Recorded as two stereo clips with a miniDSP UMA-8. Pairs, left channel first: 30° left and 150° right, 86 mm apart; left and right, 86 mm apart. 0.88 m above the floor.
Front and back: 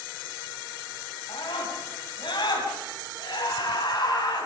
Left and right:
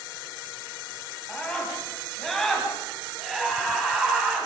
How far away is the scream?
About 7.5 m.